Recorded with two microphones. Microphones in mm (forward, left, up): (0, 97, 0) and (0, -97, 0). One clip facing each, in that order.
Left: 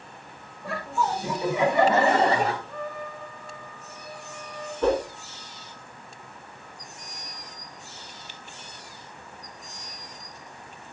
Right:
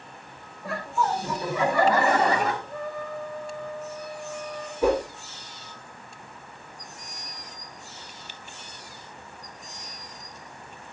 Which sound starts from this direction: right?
A trumpet, at 2.6 s.